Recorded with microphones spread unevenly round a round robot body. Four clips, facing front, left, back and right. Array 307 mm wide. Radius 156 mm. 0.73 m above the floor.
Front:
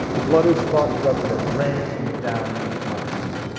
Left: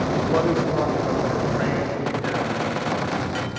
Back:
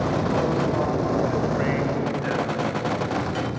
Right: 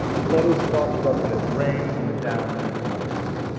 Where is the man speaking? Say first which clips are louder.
Right 4 dB, front 6 dB; 10° right, 1.4 m; by 3.1 s 35° right, 5 m.